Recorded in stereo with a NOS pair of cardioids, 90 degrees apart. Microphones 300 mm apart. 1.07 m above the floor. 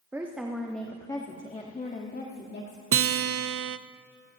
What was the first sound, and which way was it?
A woman speaking, 10° right.